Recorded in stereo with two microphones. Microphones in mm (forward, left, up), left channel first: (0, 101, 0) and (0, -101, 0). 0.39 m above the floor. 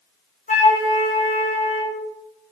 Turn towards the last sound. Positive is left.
turn(degrees=40)  # may be behind; listen again after turning